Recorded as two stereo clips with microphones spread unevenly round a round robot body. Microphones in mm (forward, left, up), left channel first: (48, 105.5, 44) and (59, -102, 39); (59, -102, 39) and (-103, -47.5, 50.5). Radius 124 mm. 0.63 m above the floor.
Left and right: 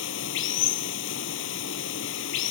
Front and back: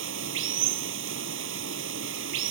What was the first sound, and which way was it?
Running water, 135° left.